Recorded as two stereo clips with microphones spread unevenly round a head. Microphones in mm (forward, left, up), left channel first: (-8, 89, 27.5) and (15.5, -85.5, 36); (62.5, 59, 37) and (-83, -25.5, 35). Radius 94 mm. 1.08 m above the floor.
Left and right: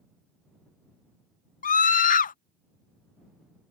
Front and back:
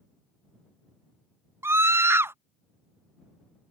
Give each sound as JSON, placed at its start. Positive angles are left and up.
{"t": 1.6, "sound": "a scream", "azimuth_deg": 135}